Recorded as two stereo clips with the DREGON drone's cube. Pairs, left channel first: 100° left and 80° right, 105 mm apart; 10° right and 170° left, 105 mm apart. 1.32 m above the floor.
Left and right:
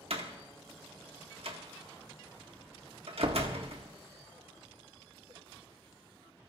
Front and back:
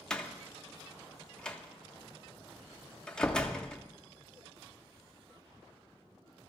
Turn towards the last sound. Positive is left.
turn(degrees=-90)